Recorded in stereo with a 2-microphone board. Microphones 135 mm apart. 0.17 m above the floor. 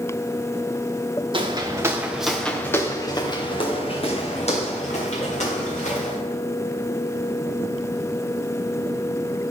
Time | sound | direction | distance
1.3 | footsteps | 35° right (ahead or behind) | 1.8 m